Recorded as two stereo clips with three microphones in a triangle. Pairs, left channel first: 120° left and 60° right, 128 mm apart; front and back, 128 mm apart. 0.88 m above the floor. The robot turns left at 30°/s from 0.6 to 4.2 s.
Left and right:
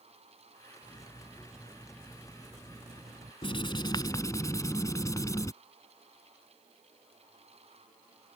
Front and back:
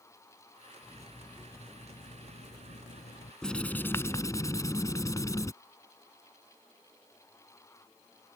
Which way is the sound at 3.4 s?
85° left.